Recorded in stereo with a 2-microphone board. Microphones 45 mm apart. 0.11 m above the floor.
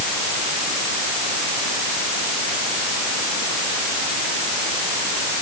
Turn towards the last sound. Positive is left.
No sound to turn to.